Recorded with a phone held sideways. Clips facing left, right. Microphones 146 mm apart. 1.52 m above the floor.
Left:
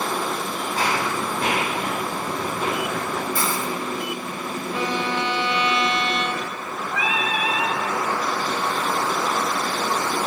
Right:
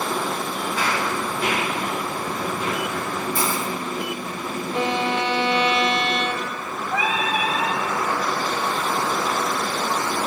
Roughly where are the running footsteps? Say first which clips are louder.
Left 2 dB; left.